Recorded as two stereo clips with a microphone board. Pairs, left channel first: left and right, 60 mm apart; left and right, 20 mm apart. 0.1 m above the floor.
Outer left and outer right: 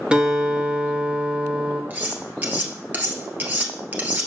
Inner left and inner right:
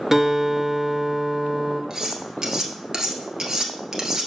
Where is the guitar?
15° right (ahead or behind), 1.6 m.